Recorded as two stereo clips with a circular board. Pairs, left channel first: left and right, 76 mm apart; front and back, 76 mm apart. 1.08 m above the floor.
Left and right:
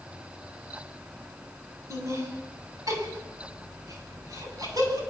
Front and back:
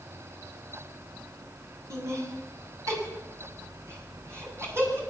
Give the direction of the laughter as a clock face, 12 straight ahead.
4 o'clock.